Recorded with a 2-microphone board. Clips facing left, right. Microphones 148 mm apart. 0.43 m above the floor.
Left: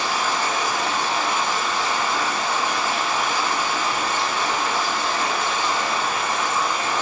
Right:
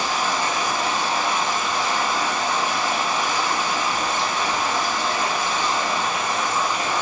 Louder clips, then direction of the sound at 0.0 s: Even; 15° right (ahead or behind).